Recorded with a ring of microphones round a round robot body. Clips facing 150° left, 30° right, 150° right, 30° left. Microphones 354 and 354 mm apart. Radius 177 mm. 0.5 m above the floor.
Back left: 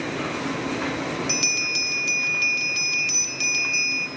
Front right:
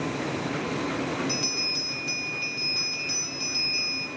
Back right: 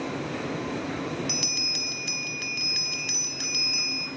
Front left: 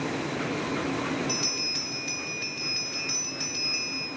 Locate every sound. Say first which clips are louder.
1.3 s a bell: back left 1 dB, front left 1 dB; 175° right, 1.2 m